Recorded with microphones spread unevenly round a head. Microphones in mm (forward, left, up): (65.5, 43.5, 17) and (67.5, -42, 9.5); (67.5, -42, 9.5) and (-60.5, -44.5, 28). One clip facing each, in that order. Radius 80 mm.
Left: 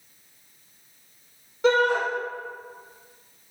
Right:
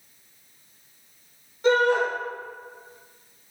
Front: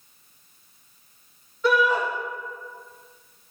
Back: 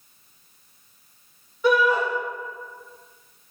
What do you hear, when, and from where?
1.6 s a shout: 100° left, 1.8 m